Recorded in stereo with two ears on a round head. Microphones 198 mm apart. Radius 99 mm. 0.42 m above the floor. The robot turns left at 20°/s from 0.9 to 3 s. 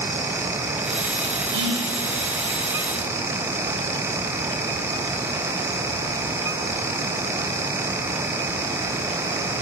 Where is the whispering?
55° right (ahead or behind), 1.6 m.